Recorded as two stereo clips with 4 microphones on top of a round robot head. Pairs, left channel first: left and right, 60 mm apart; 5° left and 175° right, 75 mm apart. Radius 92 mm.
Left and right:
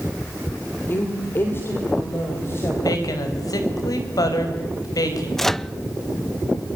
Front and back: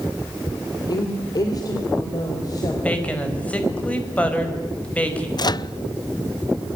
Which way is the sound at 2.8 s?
75° left.